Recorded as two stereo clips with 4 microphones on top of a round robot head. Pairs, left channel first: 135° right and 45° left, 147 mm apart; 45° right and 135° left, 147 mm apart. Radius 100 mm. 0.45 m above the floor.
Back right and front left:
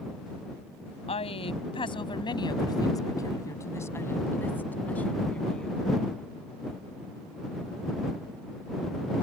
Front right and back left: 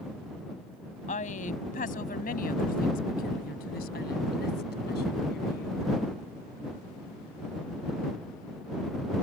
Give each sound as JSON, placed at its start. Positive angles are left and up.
{"t": 1.1, "sound": "a woman speaking", "azimuth_deg": -85}